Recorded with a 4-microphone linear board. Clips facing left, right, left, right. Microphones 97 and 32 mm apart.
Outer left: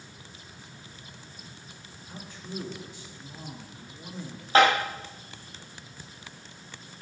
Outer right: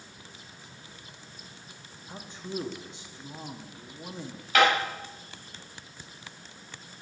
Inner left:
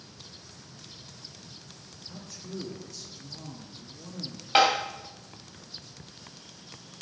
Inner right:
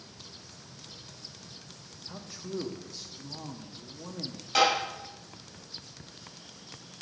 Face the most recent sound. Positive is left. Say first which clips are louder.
# outer left 2 dB, inner left 3 dB
turn(degrees=35)  # may be behind; listen again after turning